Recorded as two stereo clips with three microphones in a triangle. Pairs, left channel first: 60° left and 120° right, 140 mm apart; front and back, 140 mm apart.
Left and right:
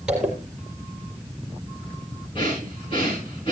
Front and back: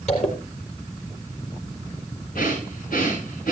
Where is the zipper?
35° right, 4.5 m.